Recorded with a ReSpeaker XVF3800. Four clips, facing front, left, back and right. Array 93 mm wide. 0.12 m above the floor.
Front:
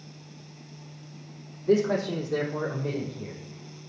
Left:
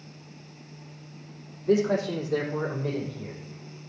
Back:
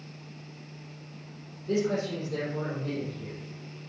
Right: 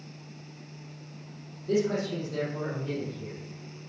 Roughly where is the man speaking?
Ahead left.